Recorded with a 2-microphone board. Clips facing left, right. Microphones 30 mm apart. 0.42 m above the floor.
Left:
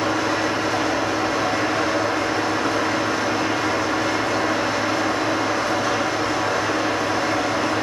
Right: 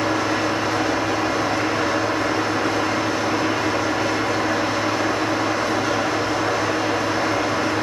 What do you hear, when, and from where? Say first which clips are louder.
0.0 s an engine running: even; 15° right (ahead or behind), 1.7 m